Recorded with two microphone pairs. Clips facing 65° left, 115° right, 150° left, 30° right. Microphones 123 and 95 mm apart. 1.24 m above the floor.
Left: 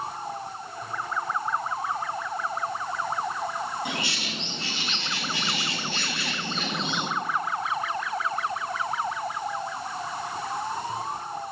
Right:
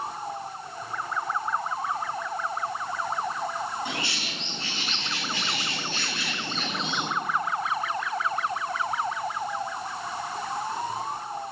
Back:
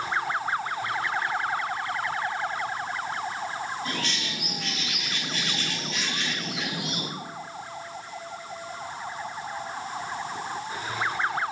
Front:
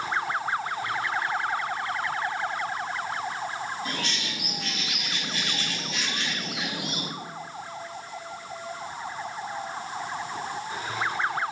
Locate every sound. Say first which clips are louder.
3.9 s a bird: left 1 dB, back 1 dB; 40° left, 3.5 m